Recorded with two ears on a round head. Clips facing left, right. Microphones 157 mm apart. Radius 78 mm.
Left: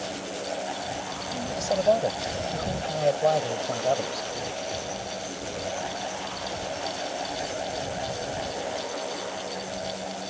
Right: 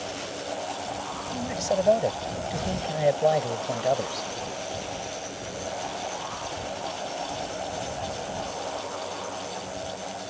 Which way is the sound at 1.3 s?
10° right (ahead or behind).